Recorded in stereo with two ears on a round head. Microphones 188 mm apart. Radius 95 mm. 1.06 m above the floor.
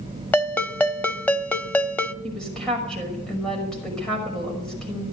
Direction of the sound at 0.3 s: 10° left (ahead or behind).